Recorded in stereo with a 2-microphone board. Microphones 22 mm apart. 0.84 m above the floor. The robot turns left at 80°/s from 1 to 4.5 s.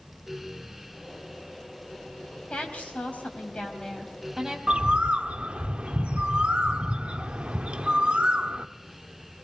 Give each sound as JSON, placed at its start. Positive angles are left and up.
{"t": 2.5, "sound": "a woman speaking", "azimuth_deg": 135, "distance_m": 4.5}
{"t": 4.7, "sound": "a bird", "side_deg": -55, "distance_m": 0.7}